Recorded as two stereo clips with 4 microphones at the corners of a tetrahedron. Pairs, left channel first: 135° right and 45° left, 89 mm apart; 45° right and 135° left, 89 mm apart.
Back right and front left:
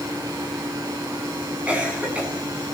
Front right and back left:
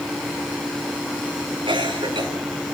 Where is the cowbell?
No cowbell in this recording.